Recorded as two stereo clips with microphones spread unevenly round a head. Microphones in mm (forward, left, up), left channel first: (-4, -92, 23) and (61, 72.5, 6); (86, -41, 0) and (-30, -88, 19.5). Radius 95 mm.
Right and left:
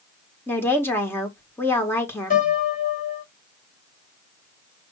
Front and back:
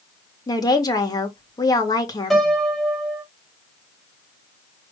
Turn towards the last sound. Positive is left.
turn(degrees=-65)